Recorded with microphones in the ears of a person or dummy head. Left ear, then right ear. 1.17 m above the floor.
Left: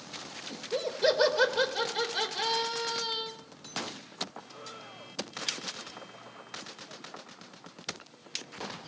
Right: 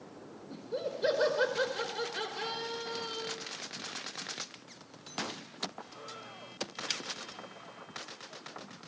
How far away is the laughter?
About 4.5 m.